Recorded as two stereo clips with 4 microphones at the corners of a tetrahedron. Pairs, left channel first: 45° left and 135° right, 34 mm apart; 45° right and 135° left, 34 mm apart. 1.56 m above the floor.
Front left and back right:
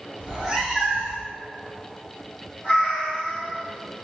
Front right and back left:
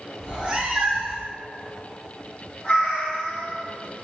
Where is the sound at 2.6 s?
10° left, 1.8 m.